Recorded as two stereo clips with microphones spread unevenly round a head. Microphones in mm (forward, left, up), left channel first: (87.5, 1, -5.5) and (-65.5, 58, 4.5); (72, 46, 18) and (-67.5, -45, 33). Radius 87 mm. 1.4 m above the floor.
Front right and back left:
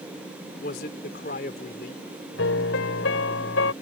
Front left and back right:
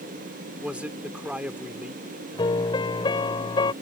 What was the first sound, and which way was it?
A man speaking, 65° right.